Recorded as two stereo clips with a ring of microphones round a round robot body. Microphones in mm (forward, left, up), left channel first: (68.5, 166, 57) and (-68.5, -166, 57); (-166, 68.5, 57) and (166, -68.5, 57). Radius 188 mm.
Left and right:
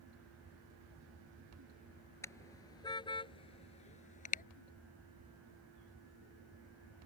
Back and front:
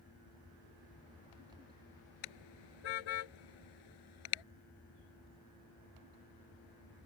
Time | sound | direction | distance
2.2 | a car horn | 150° left | ?